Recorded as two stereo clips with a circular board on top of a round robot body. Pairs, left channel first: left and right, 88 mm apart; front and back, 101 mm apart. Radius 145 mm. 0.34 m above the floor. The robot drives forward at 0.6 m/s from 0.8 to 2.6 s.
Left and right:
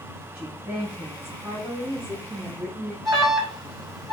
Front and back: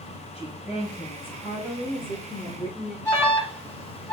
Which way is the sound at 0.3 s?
20° right.